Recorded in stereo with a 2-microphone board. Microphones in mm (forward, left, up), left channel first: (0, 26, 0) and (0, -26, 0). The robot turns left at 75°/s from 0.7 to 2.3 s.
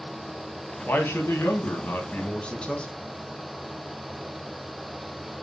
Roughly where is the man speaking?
Behind left.